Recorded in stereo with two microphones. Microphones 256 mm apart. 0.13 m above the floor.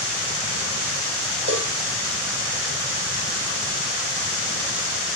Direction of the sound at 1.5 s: 45° right (ahead or behind).